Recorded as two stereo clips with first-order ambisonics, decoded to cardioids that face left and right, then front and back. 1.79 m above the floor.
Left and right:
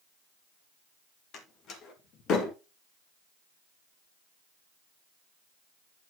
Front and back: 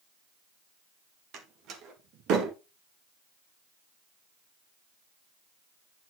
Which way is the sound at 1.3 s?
140° left.